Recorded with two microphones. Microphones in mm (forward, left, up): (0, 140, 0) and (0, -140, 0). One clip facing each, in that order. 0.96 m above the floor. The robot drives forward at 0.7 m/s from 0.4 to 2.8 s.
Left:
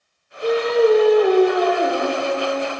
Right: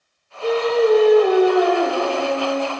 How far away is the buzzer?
No buzzer in this recording.